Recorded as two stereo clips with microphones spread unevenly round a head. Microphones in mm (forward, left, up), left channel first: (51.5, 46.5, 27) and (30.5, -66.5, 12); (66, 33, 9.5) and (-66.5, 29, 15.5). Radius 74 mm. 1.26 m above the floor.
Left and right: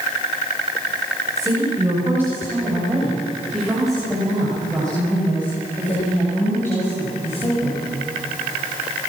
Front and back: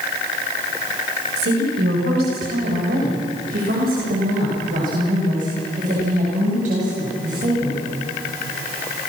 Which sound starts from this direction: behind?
A woman speaking, at 1.4 s.